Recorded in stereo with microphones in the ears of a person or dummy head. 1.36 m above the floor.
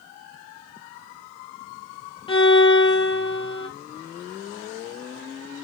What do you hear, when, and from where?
2.3 s a violin: 25° left (ahead or behind), 0.7 m